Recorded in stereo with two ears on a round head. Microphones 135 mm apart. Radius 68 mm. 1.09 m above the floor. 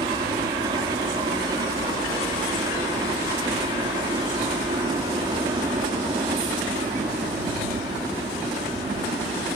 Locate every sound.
0.0 s a helicopter: 25° right (ahead or behind)